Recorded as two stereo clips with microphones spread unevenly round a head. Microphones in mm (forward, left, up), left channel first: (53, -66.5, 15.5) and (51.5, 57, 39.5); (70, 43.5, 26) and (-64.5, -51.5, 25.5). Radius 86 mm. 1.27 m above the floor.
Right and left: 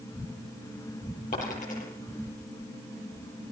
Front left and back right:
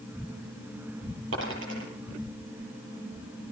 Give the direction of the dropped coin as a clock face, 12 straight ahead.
4 o'clock.